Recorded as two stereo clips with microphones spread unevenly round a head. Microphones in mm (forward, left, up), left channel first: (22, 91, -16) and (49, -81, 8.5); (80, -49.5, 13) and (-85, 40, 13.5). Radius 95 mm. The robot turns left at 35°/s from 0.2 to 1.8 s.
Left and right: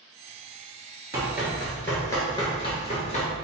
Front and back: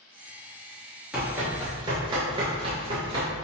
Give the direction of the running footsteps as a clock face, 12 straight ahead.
4 o'clock.